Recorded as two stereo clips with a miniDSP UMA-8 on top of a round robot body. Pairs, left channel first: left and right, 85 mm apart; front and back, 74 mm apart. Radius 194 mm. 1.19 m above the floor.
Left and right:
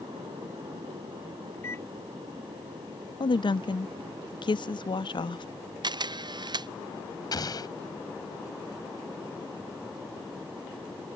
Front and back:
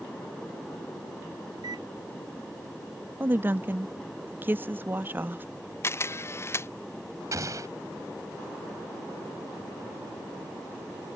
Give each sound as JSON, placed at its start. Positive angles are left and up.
{"t": 1.5, "sound": "a microwave", "azimuth_deg": 150}
{"t": 3.2, "sound": "a woman speaking", "azimuth_deg": 115}
{"t": 5.8, "sound": "a camera shutter", "azimuth_deg": -55}
{"t": 7.3, "sound": "an explosion", "azimuth_deg": 135}